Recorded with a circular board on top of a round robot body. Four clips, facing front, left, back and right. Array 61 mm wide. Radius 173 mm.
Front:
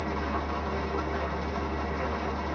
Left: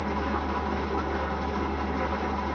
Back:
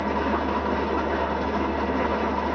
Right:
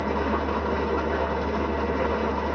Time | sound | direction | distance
0.0 | an engine running | 145° right | 0.7 m